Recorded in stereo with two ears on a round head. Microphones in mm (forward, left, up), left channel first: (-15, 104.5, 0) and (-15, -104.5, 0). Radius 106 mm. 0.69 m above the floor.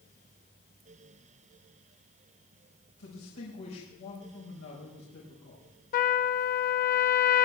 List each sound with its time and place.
3.0 s a man speaking: 70° left (ahead or behind), 4.5 m
5.9 s a trumpet: 40° left (ahead or behind), 0.5 m